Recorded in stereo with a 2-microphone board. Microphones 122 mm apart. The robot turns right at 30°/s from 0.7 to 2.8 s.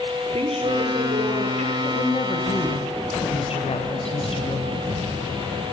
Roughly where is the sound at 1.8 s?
Left.